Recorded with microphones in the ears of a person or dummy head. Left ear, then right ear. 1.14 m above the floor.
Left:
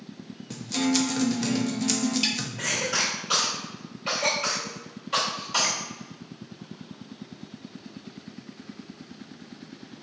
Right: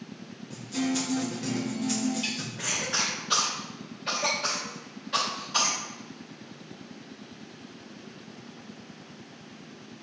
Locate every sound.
0.5 s a guitar: 35° left (ahead or behind), 1.2 m
2.6 s a cough: 25° left (ahead or behind), 2.5 m